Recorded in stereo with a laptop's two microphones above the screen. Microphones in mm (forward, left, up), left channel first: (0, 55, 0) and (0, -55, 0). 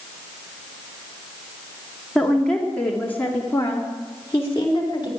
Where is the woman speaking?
5° left (ahead or behind), 2.5 m; by 5.1 s 35° left (ahead or behind), 3 m.